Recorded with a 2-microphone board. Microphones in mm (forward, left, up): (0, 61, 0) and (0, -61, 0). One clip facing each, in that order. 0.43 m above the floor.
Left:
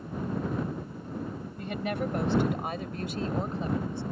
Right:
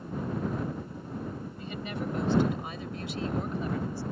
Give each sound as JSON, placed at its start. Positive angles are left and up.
{"t": 1.6, "sound": "a woman speaking", "side_deg": 60}